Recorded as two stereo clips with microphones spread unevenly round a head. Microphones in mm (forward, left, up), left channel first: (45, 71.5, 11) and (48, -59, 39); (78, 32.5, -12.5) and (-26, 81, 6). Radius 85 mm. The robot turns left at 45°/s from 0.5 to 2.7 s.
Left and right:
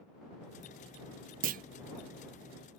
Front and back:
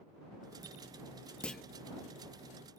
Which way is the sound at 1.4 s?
100° right.